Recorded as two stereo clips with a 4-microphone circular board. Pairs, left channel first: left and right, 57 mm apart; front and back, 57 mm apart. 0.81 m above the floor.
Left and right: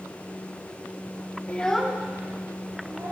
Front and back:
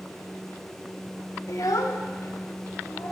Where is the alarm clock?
No alarm clock in this recording.